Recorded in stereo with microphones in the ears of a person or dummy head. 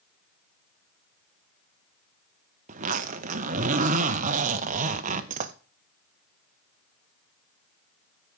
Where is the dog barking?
I don't hear a dog barking.